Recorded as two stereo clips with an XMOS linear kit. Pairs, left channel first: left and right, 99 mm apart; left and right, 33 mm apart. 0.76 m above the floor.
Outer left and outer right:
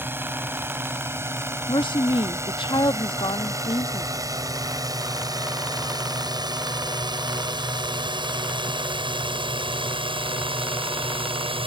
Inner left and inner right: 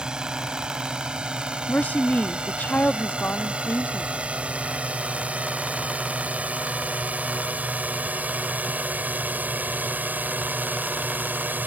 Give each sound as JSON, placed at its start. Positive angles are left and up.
{"t": 0.0, "sound": "a drone", "side_deg": -25}
{"t": 1.7, "sound": "a woman speaking", "side_deg": 55}